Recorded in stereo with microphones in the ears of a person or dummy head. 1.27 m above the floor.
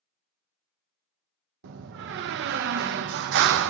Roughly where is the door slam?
Right.